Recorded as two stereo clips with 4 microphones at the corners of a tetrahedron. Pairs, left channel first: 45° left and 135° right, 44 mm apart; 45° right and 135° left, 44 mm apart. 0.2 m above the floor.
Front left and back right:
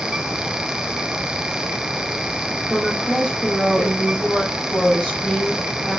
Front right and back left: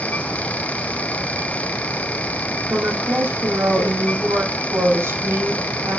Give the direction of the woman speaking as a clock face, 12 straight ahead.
8 o'clock.